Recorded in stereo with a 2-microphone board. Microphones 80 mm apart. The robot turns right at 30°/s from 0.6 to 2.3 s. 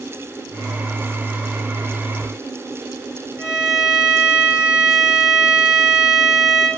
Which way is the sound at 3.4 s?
25° left (ahead or behind).